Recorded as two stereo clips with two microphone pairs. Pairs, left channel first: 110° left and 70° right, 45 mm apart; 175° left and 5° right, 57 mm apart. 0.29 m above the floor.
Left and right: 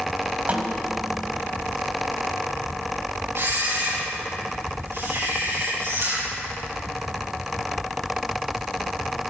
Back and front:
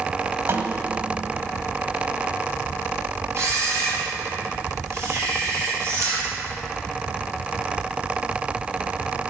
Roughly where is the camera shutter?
Ahead right.